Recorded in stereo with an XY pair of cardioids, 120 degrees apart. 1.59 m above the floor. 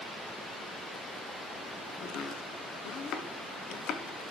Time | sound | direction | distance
2.0 | chopping | 65° left | 1.2 m